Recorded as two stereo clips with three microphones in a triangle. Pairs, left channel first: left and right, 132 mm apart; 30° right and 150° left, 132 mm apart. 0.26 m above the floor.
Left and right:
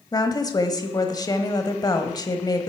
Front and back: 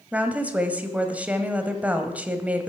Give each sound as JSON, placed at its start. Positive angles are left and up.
{"t": 0.1, "sound": "a woman speaking", "azimuth_deg": 85, "distance_m": 1.2}